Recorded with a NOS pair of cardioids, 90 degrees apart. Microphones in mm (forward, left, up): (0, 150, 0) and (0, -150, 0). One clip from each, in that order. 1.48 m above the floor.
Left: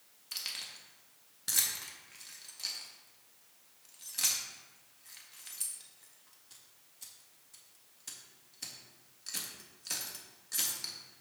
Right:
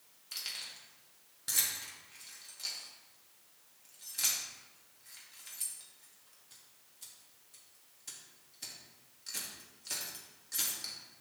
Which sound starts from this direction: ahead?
Keys jangling, at 0.3 s.